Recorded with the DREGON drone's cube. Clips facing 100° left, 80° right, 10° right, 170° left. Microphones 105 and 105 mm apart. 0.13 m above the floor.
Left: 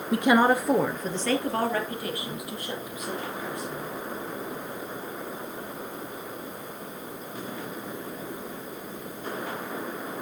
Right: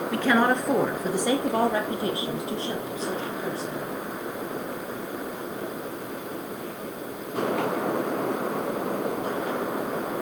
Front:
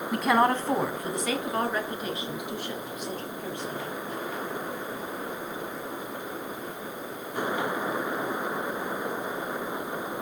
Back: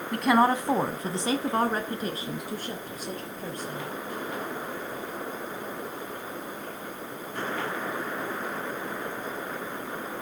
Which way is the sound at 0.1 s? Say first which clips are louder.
Left 2 dB, back 1 dB; 65° left.